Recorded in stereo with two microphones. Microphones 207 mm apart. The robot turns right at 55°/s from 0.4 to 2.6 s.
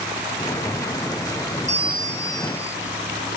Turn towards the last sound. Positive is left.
turn(degrees=15)